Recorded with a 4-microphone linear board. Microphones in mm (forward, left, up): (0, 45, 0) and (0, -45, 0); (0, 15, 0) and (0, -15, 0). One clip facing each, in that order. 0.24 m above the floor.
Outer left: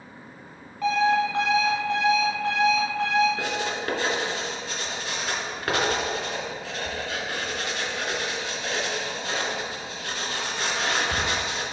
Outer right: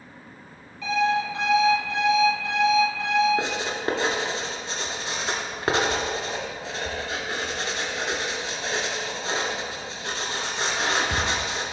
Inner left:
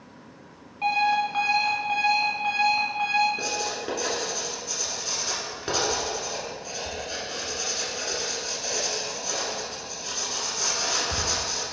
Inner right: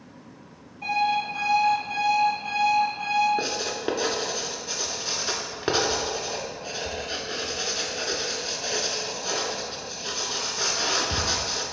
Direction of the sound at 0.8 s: 50° left (ahead or behind).